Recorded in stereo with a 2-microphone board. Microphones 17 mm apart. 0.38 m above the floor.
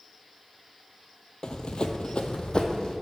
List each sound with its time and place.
1.4 s running footsteps: 50° left (ahead or behind), 0.7 m; by 2.9 s 45° left (ahead or behind), 1.1 m